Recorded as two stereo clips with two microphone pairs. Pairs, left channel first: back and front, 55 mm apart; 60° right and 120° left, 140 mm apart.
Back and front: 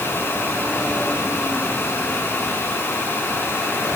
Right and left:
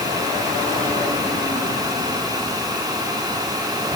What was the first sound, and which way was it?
Only background noise.